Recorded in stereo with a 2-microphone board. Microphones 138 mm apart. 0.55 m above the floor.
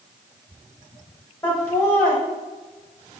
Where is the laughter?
15° left (ahead or behind), 1.0 m.